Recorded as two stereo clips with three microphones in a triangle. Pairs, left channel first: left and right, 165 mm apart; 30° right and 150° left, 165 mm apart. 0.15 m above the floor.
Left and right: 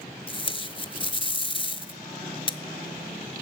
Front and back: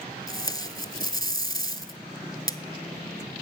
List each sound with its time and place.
0.3 s tape being pulled: 30° left, 0.5 m